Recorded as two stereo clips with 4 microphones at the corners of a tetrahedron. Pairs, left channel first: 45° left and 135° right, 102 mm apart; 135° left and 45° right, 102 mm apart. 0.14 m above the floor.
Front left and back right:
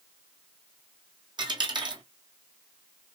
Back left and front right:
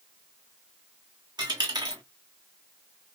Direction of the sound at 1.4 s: 90° right.